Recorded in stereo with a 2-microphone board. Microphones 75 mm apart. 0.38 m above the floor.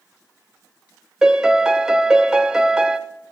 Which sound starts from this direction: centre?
A piano, at 1.2 s.